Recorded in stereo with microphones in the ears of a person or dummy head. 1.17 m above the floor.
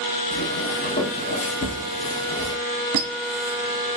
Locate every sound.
0.3 s footsteps: 50° left (ahead or behind), 1.9 m; by 2.5 s 10° left (ahead or behind), 1.2 m
2.9 s a squeak: 50° right (ahead or behind), 0.7 m